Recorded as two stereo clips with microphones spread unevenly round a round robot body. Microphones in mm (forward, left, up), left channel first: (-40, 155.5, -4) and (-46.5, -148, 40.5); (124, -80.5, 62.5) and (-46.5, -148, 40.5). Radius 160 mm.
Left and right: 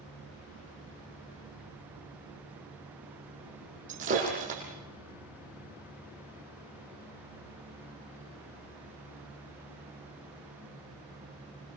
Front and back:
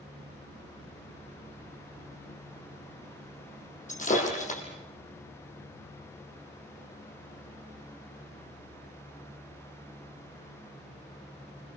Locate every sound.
3.9 s breaking glass: 25° right, 6 m